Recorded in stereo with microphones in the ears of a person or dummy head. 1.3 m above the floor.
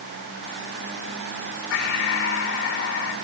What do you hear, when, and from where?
1.7 s breathing: 60° left (ahead or behind), 10 m